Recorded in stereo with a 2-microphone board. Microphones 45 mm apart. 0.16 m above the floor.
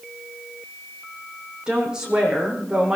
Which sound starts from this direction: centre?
A woman speaking, at 1.7 s.